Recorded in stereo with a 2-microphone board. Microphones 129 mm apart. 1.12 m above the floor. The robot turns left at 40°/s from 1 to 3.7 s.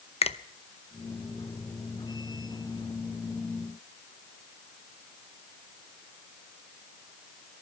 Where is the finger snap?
50° left (ahead or behind), 0.7 m.